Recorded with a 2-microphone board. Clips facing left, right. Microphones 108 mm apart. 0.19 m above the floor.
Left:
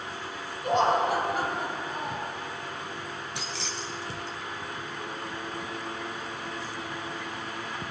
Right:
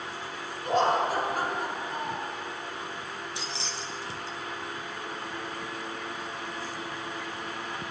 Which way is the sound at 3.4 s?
65° left (ahead or behind).